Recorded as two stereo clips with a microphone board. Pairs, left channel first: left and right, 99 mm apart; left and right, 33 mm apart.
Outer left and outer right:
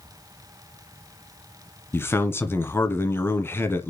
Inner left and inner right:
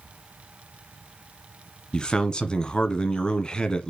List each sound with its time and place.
1.9 s a man speaking: 25° left (ahead or behind), 1.2 m